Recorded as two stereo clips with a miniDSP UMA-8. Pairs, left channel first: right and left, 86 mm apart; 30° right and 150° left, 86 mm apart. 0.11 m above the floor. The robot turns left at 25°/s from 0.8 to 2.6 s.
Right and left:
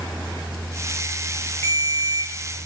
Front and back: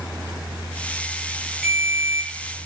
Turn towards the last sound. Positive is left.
turn(degrees=-145)